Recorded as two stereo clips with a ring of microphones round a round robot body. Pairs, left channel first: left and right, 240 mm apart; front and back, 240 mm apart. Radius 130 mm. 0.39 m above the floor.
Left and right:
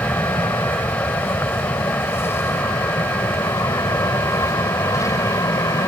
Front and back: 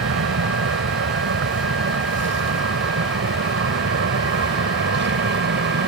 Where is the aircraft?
170° left; by 5.9 s 160° left.